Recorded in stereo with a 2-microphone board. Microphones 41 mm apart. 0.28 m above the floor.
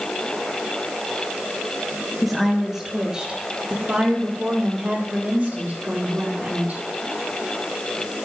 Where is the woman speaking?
Centre (ahead or behind), 3.5 m; by 6.8 s 50° right (ahead or behind), 8.5 m.